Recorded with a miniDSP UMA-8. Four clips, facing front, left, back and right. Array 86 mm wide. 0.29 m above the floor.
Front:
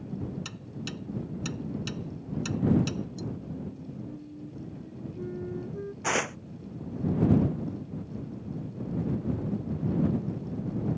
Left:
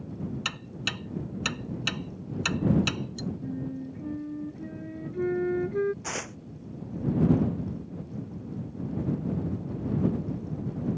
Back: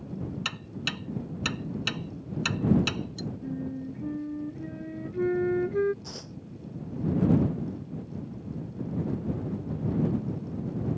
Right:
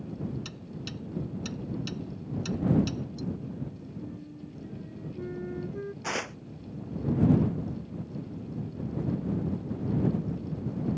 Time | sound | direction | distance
0.5 | ticking | 130° left | ?
3.4 | a flute | 145° left | ?
6.0 | tearing paper | 10° right | ?